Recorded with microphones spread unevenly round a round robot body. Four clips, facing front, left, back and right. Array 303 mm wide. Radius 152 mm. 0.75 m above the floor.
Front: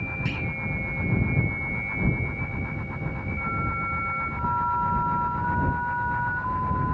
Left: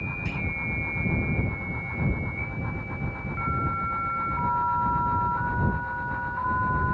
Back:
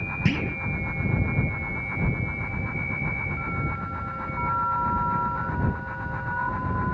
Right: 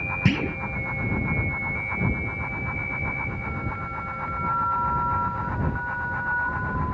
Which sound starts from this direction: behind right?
A clunk, at 0.2 s.